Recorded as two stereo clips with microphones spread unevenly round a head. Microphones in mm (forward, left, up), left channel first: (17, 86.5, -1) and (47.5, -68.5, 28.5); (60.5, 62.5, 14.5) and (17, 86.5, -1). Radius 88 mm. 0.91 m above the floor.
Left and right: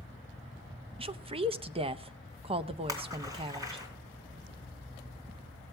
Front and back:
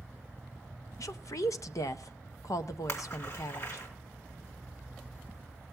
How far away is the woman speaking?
About 0.7 m.